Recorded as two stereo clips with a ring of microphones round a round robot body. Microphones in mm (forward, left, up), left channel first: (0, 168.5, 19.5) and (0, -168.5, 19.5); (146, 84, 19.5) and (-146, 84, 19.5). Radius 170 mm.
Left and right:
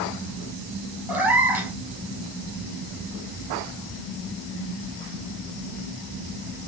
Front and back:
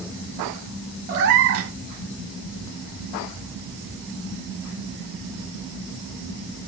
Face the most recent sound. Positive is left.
turn(degrees=-175)